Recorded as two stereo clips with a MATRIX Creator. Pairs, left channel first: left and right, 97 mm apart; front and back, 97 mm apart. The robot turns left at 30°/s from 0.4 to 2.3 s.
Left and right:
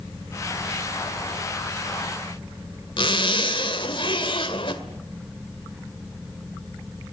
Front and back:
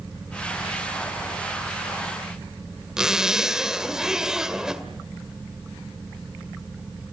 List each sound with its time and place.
3.0 s a zipper: 95° left, 1.9 m